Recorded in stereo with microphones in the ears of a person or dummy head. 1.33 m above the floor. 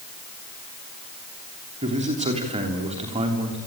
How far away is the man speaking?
About 3 m.